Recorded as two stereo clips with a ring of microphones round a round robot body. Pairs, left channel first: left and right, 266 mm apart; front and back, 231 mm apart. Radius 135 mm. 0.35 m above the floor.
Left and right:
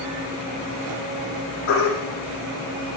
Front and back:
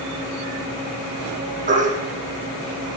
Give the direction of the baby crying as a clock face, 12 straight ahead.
8 o'clock.